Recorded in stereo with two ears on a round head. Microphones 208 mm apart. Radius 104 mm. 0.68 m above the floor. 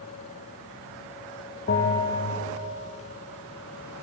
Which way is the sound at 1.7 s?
40° left (ahead or behind).